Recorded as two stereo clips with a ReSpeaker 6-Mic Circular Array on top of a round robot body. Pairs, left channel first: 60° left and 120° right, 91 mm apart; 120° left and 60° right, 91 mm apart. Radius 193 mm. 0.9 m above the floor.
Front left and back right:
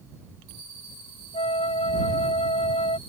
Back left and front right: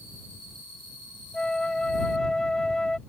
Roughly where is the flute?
Ahead left.